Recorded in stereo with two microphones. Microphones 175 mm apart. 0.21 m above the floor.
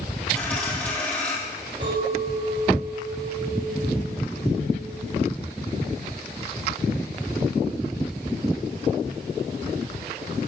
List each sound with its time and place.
0.3 s a dropped coin: 10° left (ahead or behind), 4 m
1.8 s a clink: 80° right, 6 m